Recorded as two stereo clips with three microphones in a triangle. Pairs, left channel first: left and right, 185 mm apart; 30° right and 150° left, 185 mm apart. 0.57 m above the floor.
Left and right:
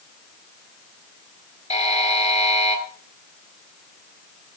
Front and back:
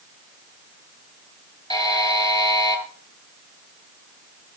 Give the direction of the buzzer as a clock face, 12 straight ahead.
11 o'clock.